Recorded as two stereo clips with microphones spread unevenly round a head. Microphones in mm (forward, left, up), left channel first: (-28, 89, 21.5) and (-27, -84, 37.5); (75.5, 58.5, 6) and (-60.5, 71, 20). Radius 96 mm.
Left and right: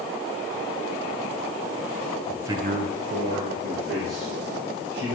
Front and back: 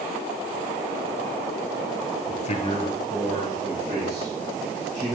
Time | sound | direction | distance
2.3 | a man speaking | 10° left | 0.7 m